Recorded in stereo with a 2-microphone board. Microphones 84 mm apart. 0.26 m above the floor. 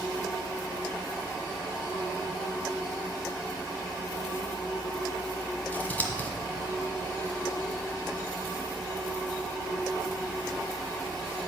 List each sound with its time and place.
5.7 s scissors: 20° left (ahead or behind), 1.4 m